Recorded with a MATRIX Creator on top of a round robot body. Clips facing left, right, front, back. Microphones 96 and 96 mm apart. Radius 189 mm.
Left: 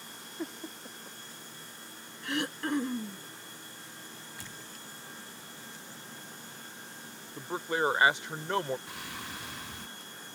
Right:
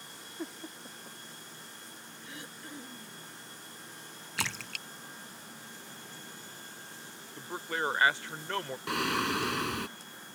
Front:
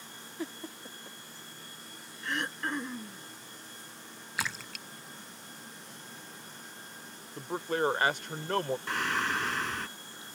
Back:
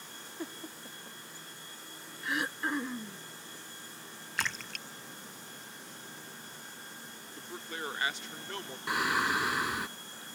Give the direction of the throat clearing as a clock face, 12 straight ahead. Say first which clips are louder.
Left 16 dB, back 1 dB; 9 o'clock.